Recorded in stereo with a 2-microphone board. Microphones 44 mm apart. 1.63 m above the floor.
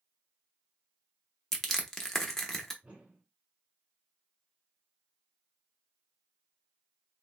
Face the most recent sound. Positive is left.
turn(degrees=-30)  # may be behind; listen again after turning